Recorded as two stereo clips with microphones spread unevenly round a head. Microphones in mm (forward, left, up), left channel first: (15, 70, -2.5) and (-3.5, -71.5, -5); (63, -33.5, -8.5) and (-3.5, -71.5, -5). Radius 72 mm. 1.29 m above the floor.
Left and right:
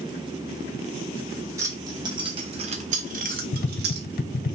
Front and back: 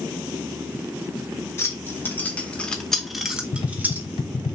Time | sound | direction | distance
1.6 | keys jangling | 25° right | 1.4 m
3.5 | tapping | 55° left | 0.5 m